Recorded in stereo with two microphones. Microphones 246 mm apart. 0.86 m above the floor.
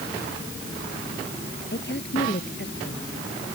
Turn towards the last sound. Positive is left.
turn(degrees=45)  # may be behind; listen again after turning